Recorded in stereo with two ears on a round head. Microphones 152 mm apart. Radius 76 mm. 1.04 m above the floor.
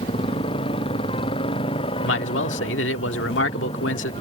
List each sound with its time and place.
0.0 s a motorcycle: 30° left (ahead or behind)
2.0 s a man speaking: 85° left